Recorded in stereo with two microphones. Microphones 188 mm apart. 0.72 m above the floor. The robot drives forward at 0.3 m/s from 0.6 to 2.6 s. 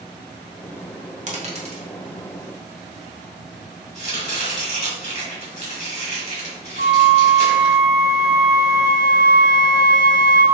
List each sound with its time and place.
1.3 s a dropped coin: 40° right (ahead or behind), 0.8 m; by 1.9 s 35° right (ahead or behind), 0.9 m
4.0 s chopping: 40° left (ahead or behind), 1.5 m
6.8 s a flute: 60° left (ahead or behind), 0.7 m